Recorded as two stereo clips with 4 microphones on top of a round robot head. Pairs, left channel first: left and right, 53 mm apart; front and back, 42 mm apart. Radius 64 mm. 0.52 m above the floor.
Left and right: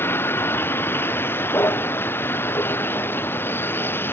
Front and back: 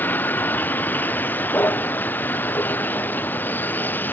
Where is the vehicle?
45° left; by 4.1 s 40° left.